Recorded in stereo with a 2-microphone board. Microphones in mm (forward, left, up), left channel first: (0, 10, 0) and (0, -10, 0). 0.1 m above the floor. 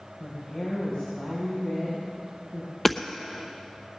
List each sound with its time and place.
0.2 s a woman speaking: 70° left (ahead or behind), 5.5 m
2.9 s hammering: 15° left (ahead or behind), 0.9 m